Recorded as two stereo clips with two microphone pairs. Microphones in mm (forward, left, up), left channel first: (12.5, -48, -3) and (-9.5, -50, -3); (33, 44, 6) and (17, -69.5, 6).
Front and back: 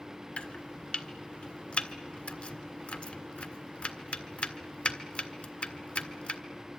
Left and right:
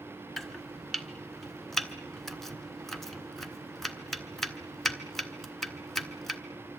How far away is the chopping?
About 1.6 m.